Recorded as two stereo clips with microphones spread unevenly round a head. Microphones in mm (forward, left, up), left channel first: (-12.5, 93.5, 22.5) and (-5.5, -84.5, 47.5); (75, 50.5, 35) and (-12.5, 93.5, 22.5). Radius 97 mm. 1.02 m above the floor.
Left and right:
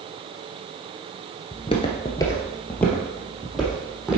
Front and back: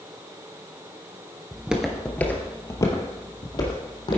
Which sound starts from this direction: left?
Footsteps, at 1.5 s.